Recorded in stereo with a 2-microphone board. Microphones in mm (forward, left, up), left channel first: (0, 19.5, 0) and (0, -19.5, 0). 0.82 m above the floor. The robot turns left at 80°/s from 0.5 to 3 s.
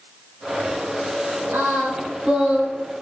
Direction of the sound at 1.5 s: 85° right.